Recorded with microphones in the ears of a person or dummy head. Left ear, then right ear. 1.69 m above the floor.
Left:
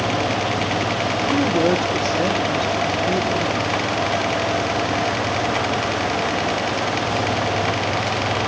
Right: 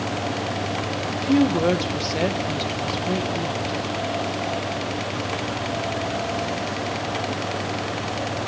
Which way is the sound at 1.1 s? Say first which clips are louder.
Right 1 dB; 50° right (ahead or behind).